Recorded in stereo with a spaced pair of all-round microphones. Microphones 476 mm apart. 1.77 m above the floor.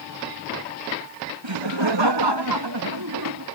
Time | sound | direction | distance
1.4 | laughter | 65° right (ahead or behind) | ?